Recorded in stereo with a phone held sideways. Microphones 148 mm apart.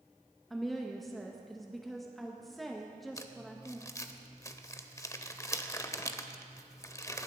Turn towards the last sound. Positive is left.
turn(degrees=20)  # may be behind; listen again after turning